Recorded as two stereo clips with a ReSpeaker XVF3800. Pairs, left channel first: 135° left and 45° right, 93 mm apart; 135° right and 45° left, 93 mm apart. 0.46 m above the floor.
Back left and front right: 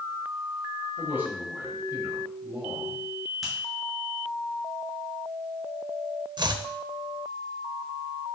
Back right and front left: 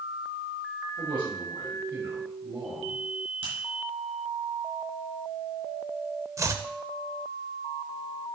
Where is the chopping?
10° right, 0.6 m.